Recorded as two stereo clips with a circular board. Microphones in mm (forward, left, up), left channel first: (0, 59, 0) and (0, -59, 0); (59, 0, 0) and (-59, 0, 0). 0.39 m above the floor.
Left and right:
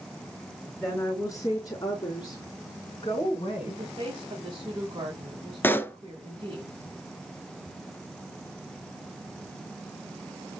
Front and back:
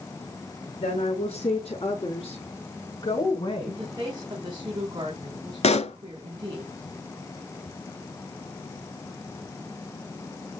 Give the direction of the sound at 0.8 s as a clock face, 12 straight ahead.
11 o'clock.